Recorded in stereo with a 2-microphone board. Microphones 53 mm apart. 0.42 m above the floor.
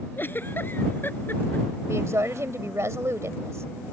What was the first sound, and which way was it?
A giggle, 40° left (ahead or behind).